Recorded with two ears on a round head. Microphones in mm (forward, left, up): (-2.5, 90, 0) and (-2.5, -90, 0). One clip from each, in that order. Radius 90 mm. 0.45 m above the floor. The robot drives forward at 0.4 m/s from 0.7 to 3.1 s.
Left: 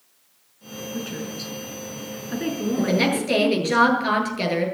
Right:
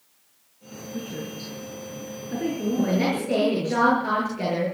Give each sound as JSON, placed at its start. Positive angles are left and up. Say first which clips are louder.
{"t": 0.9, "sound": "a woman speaking", "louder": "left 1 dB", "side_deg": 45, "distance_m": 5.0}
{"t": 2.8, "sound": "a woman speaking", "louder": "left 4 dB", "side_deg": 75, "distance_m": 8.5}